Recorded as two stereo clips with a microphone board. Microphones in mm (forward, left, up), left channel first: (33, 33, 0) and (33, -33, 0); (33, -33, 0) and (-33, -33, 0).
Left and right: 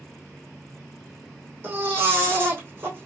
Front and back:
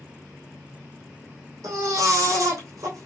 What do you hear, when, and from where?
1.6 s a baby crying: 150° right, 2.5 m